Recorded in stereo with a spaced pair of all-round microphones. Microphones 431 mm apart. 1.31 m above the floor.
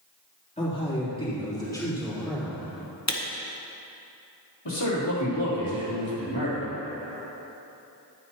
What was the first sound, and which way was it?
A man speaking, 15° left (ahead or behind).